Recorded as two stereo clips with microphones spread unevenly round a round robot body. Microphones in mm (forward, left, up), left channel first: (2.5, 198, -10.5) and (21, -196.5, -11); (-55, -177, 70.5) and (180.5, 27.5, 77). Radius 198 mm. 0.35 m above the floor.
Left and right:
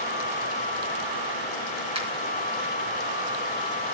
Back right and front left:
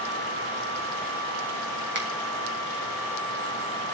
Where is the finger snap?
10° right, 4 m.